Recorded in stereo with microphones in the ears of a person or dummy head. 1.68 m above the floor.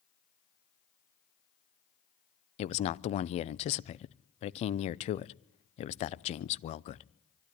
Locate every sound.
2.6 s a man speaking: 35° left (ahead or behind), 0.6 m